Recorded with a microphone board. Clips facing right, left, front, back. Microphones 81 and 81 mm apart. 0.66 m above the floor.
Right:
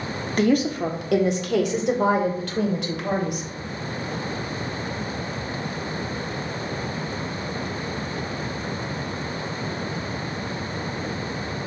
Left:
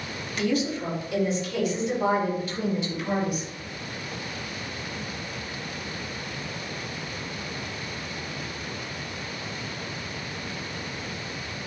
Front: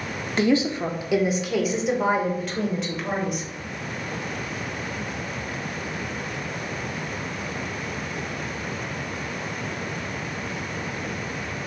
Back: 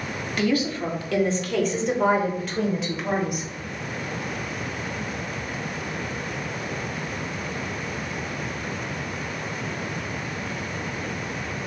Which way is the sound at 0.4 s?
55° right.